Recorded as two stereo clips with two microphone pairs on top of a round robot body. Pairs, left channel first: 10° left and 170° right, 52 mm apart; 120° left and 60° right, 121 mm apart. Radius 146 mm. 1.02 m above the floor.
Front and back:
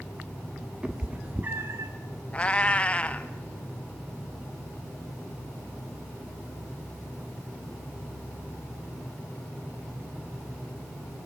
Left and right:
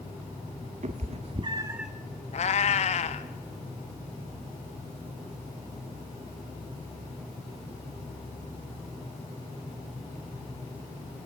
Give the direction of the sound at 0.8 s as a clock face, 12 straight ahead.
3 o'clock.